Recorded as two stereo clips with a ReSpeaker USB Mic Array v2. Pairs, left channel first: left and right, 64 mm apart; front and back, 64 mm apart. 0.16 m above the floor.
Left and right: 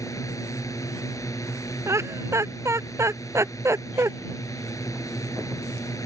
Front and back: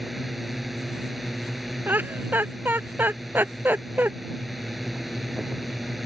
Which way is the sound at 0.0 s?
90° left.